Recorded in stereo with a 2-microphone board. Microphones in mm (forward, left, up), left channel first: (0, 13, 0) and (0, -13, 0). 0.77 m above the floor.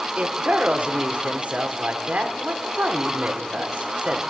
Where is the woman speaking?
65° right (ahead or behind), 2.5 m.